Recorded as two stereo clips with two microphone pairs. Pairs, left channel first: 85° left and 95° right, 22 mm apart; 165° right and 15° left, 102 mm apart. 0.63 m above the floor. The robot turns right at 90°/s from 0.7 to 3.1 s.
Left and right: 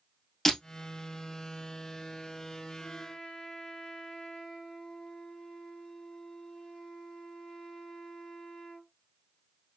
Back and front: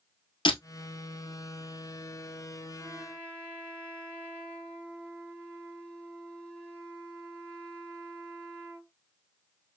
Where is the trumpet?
85° left, 2.5 m; by 8.9 s 115° left, 2.5 m.